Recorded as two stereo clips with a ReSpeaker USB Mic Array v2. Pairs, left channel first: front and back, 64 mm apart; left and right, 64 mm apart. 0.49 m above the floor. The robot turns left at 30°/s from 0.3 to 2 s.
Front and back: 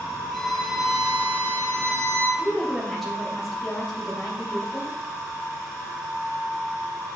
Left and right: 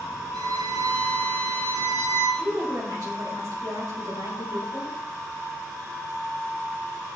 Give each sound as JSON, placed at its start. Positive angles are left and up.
{"t": 0.3, "sound": "a violin", "azimuth_deg": -85, "distance_m": 1.5}
{"t": 2.4, "sound": "a woman speaking", "azimuth_deg": -90, "distance_m": 2.5}